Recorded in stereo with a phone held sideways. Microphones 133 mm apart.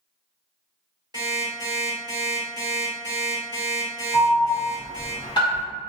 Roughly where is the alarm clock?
Right.